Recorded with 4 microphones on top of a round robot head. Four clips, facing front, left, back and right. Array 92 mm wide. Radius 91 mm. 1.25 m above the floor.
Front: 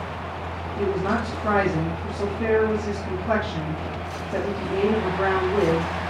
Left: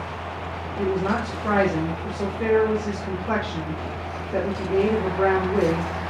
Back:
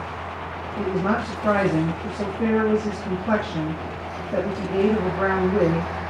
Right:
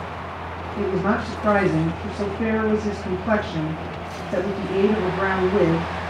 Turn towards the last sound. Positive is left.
turn(degrees=-105)